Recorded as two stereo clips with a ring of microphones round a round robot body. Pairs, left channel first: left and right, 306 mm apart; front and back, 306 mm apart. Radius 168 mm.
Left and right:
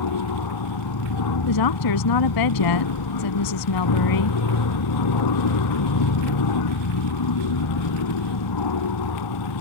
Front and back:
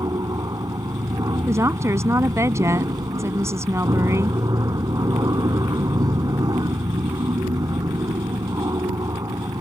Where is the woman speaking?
100° left.